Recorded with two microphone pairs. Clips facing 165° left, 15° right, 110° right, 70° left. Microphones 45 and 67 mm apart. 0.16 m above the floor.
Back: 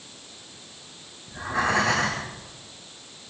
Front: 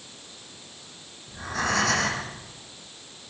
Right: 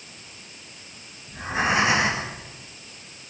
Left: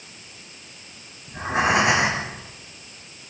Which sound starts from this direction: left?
Breathing, at 1.3 s.